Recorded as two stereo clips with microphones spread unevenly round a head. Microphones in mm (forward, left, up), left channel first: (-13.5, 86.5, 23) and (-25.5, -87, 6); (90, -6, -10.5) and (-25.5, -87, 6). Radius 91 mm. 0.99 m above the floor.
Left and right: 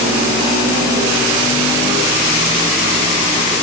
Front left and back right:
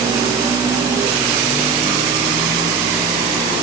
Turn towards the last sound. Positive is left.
No sound to turn to.